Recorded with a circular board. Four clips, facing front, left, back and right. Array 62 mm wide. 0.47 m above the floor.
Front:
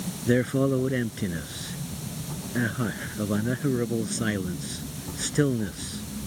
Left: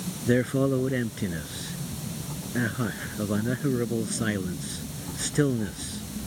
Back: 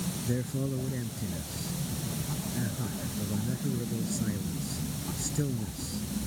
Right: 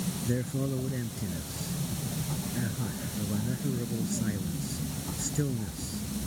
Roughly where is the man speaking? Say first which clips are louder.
Left 11 dB, front 12 dB; ahead left.